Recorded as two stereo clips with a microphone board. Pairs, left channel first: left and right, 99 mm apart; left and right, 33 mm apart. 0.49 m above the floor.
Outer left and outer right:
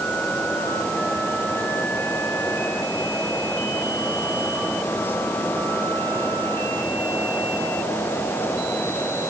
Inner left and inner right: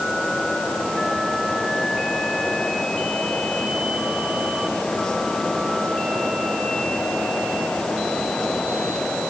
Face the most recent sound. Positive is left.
No sound to turn to.